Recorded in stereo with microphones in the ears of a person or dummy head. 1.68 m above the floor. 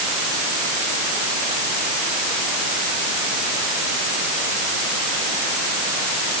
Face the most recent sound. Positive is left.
No sound to turn to.